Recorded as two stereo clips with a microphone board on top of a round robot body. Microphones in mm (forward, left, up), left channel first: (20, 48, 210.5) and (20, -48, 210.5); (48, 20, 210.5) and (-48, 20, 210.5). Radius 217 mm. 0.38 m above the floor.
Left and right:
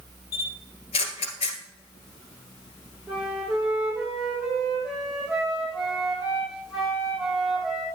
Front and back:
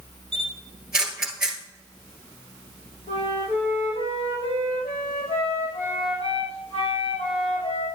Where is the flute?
5° right, 4 m.